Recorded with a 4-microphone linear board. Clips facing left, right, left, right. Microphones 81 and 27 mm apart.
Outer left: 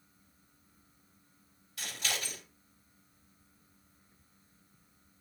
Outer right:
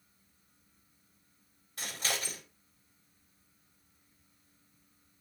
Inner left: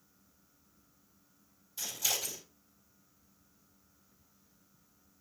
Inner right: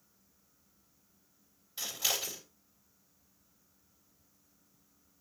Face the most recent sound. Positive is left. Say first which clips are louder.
# outer right 1 dB, inner right 1 dB
turn(degrees=-40)  # may be behind; listen again after turning